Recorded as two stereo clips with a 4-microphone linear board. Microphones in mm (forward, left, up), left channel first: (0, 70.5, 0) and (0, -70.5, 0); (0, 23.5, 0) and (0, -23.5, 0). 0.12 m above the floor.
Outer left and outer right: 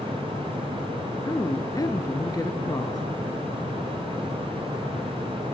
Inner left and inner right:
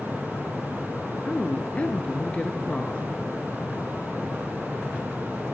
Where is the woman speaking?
25° left (ahead or behind), 1.4 m.